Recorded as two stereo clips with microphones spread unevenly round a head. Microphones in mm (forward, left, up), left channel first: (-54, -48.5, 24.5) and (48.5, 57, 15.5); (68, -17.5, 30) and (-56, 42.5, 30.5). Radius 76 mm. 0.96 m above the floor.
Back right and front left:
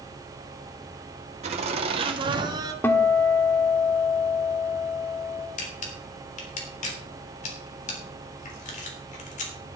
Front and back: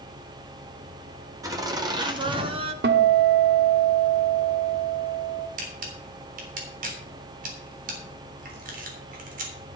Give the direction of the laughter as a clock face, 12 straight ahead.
9 o'clock.